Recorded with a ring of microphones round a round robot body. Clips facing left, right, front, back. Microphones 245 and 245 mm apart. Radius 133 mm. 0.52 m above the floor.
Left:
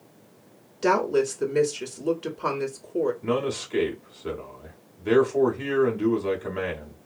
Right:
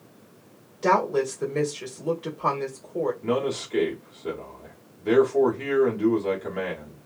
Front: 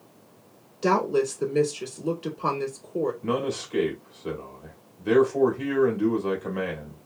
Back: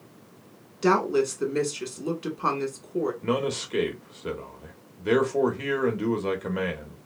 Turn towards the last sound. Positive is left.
turn(degrees=155)